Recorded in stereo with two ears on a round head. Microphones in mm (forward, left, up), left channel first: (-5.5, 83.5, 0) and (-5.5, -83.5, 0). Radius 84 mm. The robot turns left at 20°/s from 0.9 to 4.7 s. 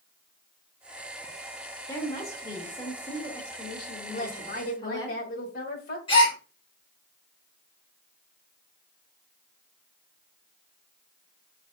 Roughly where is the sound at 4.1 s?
Left.